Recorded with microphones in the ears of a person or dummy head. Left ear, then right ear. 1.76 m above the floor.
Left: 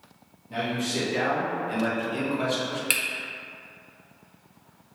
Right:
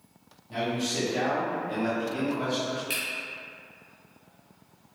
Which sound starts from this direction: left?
A finger snap, at 2.9 s.